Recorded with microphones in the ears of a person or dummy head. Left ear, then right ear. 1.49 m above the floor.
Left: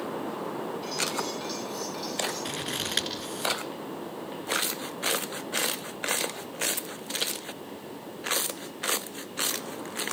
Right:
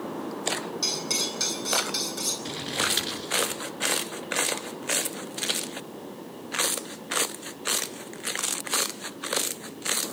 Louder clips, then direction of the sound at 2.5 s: Right 4 dB; 30° left (ahead or behind).